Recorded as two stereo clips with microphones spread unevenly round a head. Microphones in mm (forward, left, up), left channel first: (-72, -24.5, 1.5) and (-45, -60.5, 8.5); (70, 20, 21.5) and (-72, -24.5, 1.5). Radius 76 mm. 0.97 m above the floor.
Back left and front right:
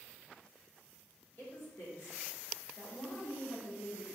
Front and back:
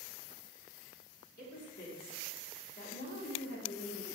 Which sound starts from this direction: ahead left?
A woman speaking, at 1.4 s.